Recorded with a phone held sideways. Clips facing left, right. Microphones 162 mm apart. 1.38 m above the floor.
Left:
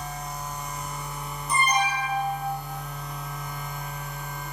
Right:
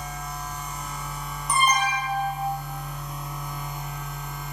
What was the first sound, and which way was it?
A machine running, centre (ahead or behind).